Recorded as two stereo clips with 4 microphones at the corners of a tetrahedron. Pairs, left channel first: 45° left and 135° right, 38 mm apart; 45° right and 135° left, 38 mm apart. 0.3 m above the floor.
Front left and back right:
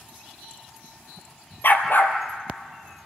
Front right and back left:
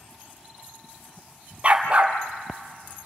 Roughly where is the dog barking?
Left.